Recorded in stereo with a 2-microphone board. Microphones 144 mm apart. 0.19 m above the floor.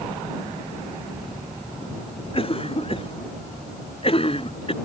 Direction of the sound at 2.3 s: 40° left (ahead or behind).